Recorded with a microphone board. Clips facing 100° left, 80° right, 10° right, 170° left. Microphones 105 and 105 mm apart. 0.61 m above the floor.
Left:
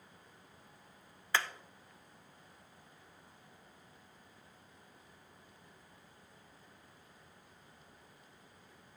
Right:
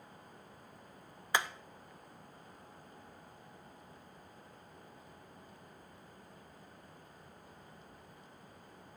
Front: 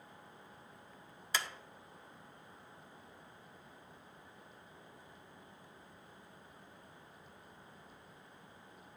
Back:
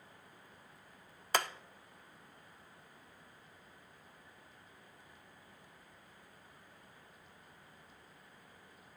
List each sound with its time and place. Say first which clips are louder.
1.3 s hammering: right 1 dB, back 5 dB; 150° right, 0.5 m